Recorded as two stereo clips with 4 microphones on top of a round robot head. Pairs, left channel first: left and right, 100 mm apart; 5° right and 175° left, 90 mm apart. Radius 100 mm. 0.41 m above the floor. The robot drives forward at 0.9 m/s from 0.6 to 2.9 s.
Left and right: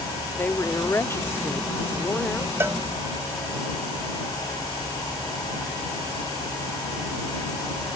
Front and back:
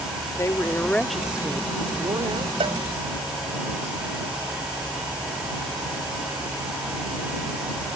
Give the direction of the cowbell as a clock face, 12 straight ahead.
5 o'clock.